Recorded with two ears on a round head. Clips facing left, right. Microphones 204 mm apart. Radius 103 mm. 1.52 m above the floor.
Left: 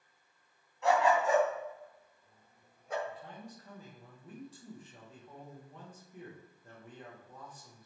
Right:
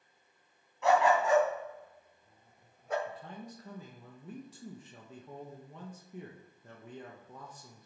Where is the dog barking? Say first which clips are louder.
Right 1 dB; 65° right (ahead or behind), 3 m; by 3.0 s 55° right (ahead or behind), 2.0 m.